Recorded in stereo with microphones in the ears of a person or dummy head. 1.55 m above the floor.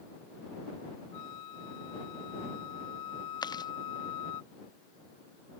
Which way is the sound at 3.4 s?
15° left (ahead or behind).